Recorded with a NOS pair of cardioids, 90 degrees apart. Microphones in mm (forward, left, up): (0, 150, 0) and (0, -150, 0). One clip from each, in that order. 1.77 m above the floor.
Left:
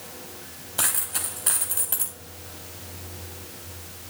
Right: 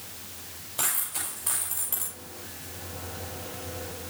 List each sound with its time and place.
0.8 s a dropped coin: 40° left, 6 m